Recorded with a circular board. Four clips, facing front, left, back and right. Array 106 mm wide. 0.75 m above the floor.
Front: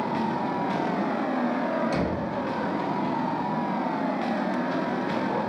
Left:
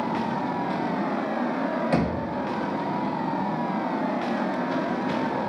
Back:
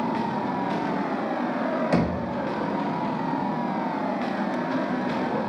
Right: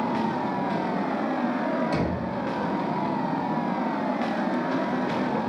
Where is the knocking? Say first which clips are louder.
Left 2 dB, back 3 dB; 145° left, 1.1 m.